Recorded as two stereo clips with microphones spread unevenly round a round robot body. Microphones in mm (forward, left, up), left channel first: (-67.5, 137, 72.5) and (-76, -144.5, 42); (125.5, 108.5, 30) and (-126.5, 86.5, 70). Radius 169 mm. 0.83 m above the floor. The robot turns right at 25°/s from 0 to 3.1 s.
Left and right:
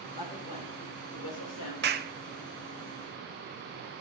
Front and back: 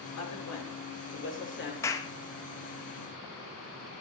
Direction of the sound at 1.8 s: 65° right.